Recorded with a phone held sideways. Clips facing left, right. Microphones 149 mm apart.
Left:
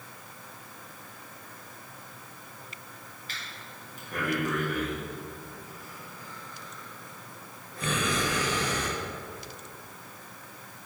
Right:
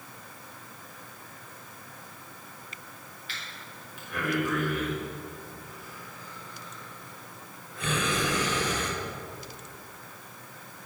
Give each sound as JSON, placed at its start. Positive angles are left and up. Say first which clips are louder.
{"t": 3.3, "sound": "breathing", "louder": "even", "side_deg": 40, "distance_m": 1.5}